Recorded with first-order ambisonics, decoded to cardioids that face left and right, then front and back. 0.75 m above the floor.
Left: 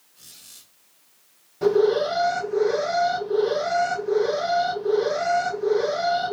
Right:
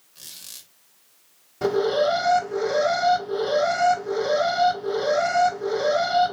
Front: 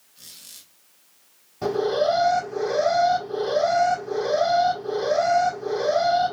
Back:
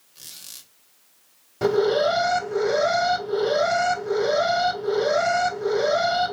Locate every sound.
0.1 s a squeak: 140° right, 1.3 m
1.6 s an alarm: 165° right, 1.8 m